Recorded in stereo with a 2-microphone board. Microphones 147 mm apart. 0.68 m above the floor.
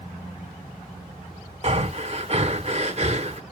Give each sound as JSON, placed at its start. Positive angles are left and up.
{"t": 1.6, "sound": "breathing", "side_deg": -45, "distance_m": 1.0}